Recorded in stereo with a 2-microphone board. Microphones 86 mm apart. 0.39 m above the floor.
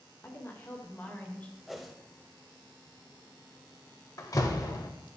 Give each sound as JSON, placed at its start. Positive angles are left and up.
{"t": 0.2, "sound": "a woman speaking", "side_deg": 25, "distance_m": 1.3}
{"t": 1.7, "sound": "a whoosh", "side_deg": 0, "distance_m": 0.8}
{"t": 4.2, "sound": "a door slam", "side_deg": 45, "distance_m": 0.8}